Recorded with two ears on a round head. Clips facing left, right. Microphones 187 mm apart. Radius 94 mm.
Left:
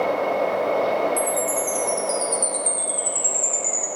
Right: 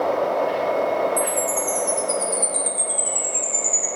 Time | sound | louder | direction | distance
1.2 | a chime | even | 5° left (ahead or behind) | 2.5 m